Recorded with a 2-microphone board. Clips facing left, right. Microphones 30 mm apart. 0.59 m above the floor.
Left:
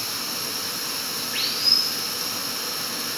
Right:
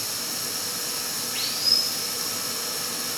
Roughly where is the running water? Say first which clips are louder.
Left 2 dB; left.